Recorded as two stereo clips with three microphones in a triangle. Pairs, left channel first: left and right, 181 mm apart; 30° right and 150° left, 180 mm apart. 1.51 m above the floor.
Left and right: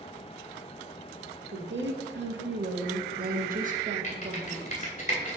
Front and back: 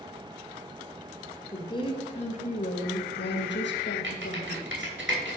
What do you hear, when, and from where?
1.5 s a woman speaking: 100° right, 1.6 m; by 5.0 s 20° right, 1.8 m
4.0 s typing on a keyboard: 145° left, 2.5 m